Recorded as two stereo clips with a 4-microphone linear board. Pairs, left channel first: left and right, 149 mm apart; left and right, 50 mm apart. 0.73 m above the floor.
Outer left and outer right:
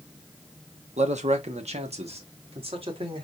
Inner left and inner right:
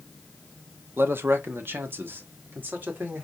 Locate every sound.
1.0 s a man speaking: 50° right (ahead or behind), 1.0 m; by 3.2 s 35° right (ahead or behind), 2 m